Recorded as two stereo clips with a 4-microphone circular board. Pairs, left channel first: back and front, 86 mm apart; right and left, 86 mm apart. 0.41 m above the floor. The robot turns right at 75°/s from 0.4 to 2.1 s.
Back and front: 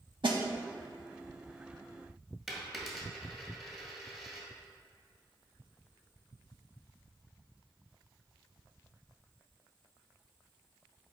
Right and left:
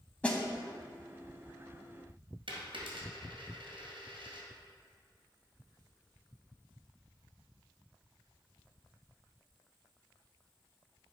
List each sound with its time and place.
0.2 s a snare drum: 15° right, 0.9 m
2.5 s a dropped coin: 90° left, 1.5 m